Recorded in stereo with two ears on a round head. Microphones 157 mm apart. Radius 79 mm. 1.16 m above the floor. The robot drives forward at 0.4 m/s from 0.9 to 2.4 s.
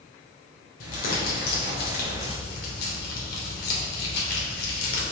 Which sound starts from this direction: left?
Crumpling, at 0.8 s.